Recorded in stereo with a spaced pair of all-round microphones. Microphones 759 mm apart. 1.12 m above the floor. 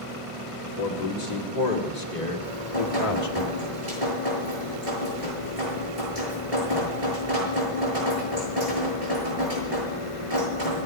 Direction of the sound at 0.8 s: 55° left (ahead or behind).